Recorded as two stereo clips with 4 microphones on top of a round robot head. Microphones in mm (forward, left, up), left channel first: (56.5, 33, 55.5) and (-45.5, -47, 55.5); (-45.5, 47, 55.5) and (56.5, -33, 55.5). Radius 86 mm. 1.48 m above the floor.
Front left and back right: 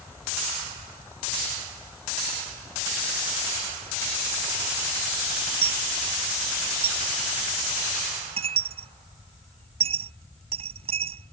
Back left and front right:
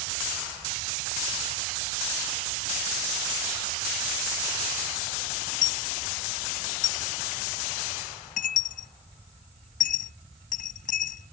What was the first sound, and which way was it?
A dropped coin, 170° left.